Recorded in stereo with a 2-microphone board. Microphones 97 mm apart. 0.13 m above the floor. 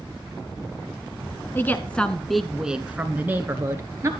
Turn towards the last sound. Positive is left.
turn(degrees=-30)  # may be behind; listen again after turning